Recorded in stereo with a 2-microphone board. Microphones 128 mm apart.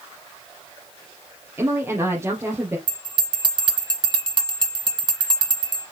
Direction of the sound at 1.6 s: 15° right (ahead or behind).